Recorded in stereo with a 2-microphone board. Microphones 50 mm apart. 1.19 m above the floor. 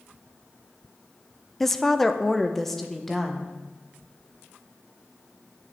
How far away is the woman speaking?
About 0.6 m.